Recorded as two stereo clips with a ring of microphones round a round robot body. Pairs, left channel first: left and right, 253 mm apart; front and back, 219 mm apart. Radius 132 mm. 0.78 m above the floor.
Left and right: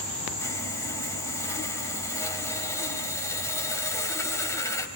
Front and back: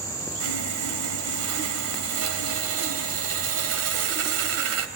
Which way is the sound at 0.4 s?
170° left.